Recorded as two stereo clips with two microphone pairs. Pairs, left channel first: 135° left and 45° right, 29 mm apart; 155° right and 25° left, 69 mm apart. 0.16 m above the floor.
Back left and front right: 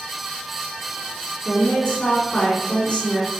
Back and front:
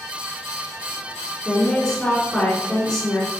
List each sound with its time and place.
1.4 s a woman speaking: 125° left, 1.9 m